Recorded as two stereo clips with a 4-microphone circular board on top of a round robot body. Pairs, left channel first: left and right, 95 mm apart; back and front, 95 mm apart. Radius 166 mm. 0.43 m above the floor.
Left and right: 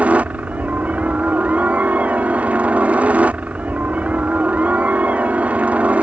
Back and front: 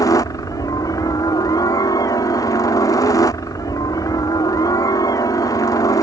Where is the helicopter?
160° right.